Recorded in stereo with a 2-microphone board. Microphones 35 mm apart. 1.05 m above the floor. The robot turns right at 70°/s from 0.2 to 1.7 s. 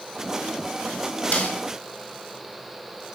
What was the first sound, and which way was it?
A snare drum, 45° left (ahead or behind).